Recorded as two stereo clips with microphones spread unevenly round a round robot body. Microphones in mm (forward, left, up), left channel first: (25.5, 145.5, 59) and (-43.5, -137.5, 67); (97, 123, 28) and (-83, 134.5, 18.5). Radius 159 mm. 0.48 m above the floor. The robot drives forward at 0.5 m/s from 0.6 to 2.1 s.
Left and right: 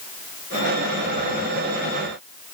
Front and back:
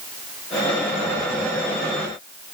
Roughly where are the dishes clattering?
I don't hear dishes clattering.